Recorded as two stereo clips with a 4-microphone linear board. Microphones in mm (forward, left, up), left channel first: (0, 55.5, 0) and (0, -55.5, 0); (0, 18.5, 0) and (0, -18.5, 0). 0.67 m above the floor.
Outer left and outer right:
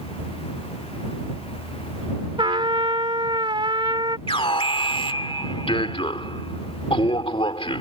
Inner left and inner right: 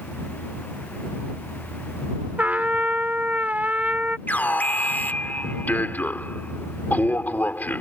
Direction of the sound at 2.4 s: 50° right (ahead or behind).